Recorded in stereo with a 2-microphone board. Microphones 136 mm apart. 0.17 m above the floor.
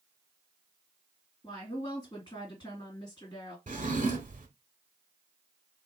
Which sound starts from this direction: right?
A drawer, at 3.7 s.